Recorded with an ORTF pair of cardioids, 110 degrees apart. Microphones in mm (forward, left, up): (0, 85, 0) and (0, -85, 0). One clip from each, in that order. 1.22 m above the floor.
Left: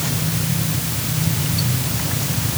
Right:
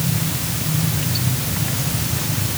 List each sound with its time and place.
Only background noise.